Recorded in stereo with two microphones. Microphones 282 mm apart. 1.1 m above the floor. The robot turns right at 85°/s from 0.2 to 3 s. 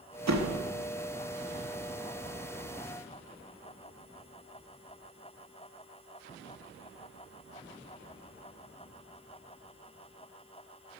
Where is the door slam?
100° right, 0.9 m; by 0.7 s 70° right, 0.9 m.